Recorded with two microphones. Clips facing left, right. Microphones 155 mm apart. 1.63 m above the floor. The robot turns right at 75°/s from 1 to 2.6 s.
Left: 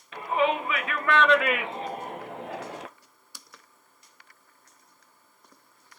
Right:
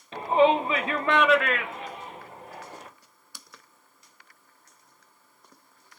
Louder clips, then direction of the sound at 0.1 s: Right 5 dB; 30° right (ahead or behind).